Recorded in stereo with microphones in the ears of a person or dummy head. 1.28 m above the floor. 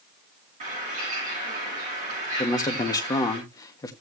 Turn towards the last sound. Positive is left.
turn(degrees=20)  # may be behind; listen again after turning